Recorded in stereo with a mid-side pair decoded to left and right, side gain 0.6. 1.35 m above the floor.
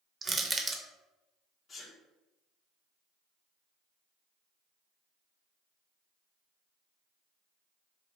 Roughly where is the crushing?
Ahead right.